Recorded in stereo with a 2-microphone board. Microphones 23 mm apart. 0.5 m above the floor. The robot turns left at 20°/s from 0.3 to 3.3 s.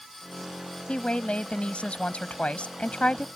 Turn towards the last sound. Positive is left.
turn(degrees=75)